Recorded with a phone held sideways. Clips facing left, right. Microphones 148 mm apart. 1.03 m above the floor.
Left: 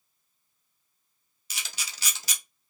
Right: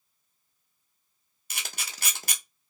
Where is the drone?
I don't hear a drone.